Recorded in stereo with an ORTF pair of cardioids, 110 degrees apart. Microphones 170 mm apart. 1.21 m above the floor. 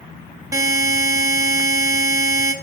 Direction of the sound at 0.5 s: 20° right.